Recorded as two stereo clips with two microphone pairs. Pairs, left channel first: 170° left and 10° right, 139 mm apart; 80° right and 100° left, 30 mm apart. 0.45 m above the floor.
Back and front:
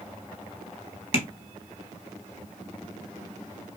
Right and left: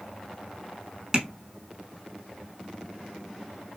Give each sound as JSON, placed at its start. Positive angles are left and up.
{"t": 1.1, "sound": "tapping", "azimuth_deg": 165, "distance_m": 1.0}